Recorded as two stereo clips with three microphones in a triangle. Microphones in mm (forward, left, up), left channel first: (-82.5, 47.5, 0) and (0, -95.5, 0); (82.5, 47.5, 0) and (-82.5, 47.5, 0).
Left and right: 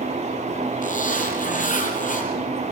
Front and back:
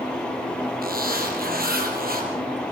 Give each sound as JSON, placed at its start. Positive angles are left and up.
{"t": 0.8, "sound": "a zipper", "azimuth_deg": 155, "distance_m": 3.5}